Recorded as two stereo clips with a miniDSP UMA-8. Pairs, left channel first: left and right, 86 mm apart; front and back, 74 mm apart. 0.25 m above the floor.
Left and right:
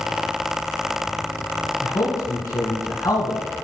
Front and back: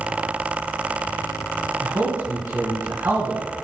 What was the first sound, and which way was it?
A man speaking, 135° left.